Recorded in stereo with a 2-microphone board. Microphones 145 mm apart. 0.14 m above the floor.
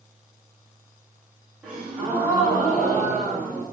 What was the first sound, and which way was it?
A gasp, 5° right (ahead or behind).